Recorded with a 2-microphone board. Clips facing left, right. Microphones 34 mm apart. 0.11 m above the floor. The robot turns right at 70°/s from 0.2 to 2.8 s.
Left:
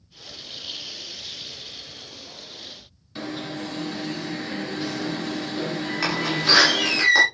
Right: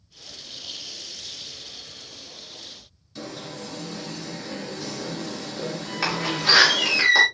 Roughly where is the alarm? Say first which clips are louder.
Left 4 dB; left.